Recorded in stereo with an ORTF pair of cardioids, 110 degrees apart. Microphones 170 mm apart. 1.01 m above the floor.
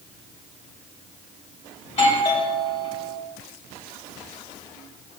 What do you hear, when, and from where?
1.9 s a doorbell: 45° left, 2.5 m